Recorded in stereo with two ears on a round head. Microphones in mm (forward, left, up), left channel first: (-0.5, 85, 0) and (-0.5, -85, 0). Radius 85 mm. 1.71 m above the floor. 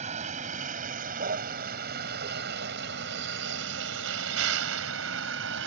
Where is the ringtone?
I don't hear a ringtone.